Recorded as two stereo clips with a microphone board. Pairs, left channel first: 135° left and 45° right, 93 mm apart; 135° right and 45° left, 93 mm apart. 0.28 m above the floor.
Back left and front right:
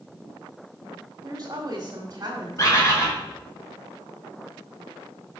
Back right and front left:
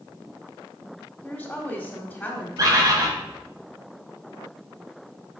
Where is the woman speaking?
65° right, 1.4 m.